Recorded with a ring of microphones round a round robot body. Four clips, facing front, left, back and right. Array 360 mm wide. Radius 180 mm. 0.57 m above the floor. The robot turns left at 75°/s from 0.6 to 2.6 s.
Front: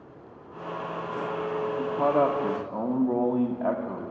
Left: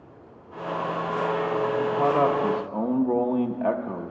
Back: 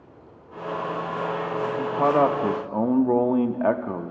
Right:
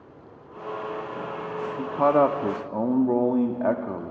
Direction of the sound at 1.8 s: 105° right.